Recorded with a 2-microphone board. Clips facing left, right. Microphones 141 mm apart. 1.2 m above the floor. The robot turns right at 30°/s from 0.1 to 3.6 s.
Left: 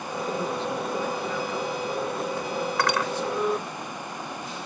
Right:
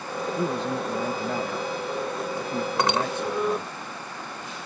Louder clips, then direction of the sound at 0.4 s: Right 4 dB; 145° right.